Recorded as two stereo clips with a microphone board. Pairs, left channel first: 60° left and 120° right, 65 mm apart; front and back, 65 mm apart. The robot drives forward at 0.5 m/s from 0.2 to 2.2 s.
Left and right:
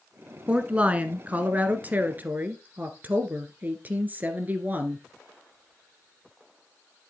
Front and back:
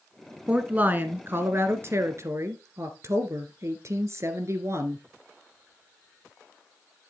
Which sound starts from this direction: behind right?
A woman speaking, at 0.5 s.